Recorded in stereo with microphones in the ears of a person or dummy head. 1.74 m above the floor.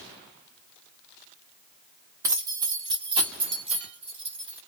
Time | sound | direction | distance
2.2 | keys jangling | 15° right (ahead or behind) | 1.0 m